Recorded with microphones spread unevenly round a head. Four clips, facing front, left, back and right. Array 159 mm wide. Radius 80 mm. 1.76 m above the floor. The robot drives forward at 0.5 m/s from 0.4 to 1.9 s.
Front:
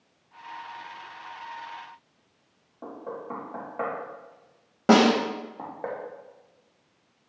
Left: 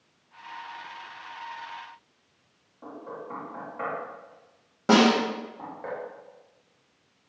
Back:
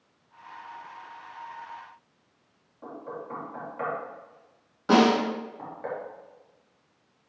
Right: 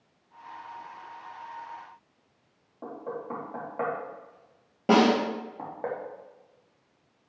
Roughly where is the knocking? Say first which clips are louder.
Right 3 dB, front 2 dB; ahead right.